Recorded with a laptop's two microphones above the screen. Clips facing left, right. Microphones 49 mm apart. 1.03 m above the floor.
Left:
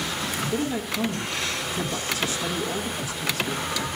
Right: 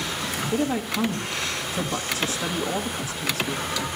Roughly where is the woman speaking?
Right.